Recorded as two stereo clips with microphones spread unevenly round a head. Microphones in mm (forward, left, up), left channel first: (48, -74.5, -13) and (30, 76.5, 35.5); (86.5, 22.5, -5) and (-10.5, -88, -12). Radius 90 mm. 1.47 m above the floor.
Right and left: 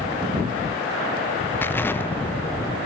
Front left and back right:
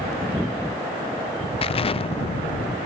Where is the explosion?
Straight ahead, 0.7 m.